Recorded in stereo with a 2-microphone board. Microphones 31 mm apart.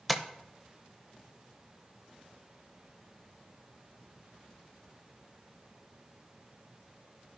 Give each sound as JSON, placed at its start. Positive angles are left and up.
{"t": 0.1, "sound": "tapping", "side_deg": 0, "distance_m": 0.6}